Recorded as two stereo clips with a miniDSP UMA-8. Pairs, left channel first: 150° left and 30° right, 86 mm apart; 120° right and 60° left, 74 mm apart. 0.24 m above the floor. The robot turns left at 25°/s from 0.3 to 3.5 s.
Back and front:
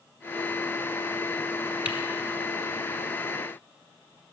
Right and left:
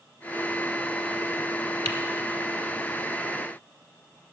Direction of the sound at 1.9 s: 105° right.